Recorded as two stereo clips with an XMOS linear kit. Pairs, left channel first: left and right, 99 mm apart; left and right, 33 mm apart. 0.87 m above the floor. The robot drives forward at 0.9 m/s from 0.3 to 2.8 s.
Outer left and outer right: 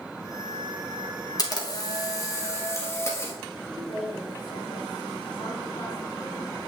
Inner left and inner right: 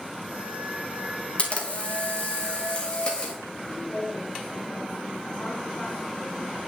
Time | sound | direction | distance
1.4 | a camera shutter | 40° left (ahead or behind) | 1.2 m
3.7 | a woman speaking | 70° left (ahead or behind) | 3.5 m